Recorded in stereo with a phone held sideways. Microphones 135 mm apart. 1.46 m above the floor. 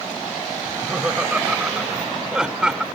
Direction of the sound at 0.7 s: 10° right (ahead or behind).